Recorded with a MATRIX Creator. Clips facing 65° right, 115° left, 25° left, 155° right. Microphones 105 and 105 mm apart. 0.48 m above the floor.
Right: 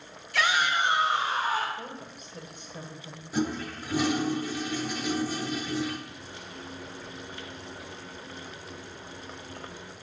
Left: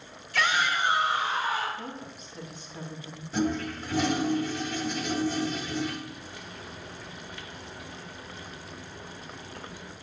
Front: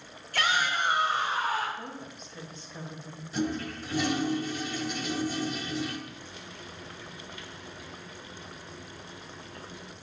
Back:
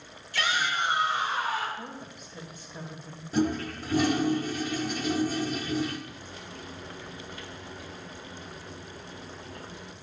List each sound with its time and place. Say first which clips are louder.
0.3 s a shout: right 1 dB, front 1 dB; 20° left, 1.6 m; by 1.7 s 20° right, 3 m
1.8 s a woman speaking: left 1 dB, even; 80° right, 2.5 m
3.3 s a toilet flushing: left 2 dB, back 4 dB; 145° right, 1.2 m
6.1 s frying: left 1 dB, back 2 dB; 120° right, 1.4 m